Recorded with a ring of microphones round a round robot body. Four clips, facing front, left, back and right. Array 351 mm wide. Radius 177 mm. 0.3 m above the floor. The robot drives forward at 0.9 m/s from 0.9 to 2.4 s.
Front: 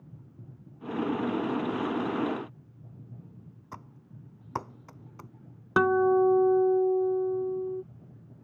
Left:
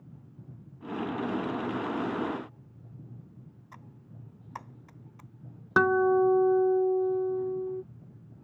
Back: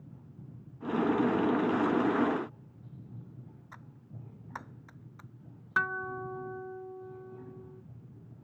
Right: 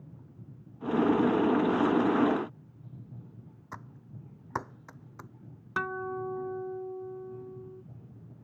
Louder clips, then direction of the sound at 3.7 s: Right 7 dB, front 8 dB; 40° right.